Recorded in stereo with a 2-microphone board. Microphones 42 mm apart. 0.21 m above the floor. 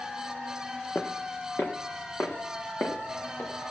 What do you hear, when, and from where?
0.9 s footsteps: 50° left (ahead or behind), 0.8 m; by 3.5 s 70° left (ahead or behind), 2.5 m